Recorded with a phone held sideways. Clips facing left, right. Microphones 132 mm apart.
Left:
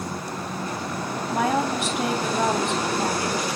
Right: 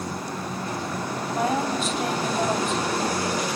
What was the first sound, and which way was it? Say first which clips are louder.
A woman speaking: left 2 dB; 85° left.